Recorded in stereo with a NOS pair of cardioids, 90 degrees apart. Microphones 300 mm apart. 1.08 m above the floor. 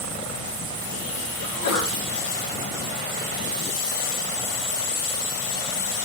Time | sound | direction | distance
1.4 | a sneeze | 70° left | 3 m